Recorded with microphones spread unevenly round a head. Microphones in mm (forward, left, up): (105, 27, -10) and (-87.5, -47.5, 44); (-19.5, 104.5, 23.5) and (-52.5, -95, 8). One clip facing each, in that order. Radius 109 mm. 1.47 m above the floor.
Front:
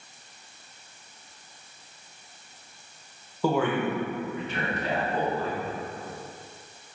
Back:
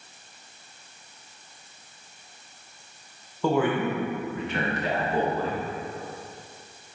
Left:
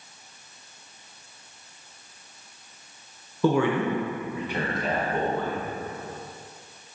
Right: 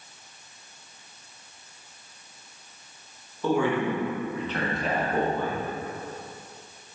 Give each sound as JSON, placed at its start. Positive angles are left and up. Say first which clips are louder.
{"t": 3.4, "sound": "a man speaking", "louder": "back 1 dB, left 2 dB", "azimuth_deg": 105, "distance_m": 1.6}